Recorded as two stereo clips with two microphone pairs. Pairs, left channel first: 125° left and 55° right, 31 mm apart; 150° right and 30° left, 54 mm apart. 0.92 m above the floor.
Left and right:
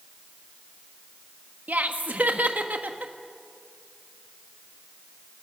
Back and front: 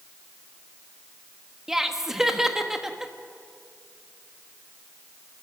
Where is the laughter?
50° right, 1.4 m.